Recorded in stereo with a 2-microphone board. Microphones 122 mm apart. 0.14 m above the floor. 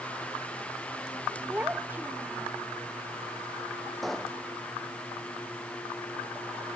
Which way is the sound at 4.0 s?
Centre (ahead or behind).